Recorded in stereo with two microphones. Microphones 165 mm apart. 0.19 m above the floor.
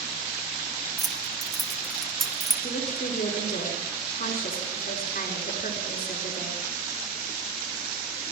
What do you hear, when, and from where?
1.0 s keys jangling: centre (ahead or behind), 1.4 m
2.6 s a woman speaking: 60° left (ahead or behind), 4 m